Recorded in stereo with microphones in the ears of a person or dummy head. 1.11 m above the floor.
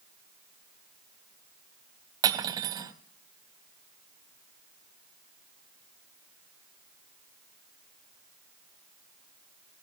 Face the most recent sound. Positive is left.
turn(degrees=-20)  # may be behind; listen again after turning